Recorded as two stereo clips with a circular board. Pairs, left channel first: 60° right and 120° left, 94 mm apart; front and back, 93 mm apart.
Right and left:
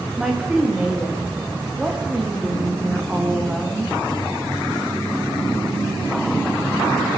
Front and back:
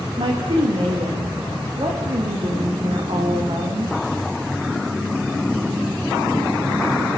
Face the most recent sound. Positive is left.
turn(degrees=-155)